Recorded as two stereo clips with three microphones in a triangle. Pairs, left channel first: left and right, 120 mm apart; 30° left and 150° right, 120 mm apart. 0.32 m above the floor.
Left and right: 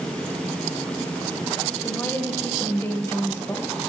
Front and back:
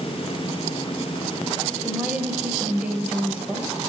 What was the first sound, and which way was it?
A woman speaking, 140° left.